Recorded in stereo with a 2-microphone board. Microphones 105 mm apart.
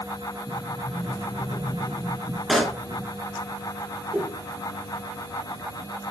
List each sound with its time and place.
0.5 s a sliding door: 25° left (ahead or behind), 3 m
2.5 s a pop: centre (ahead or behind), 1.2 m
4.1 s a whoosh: centre (ahead or behind), 6 m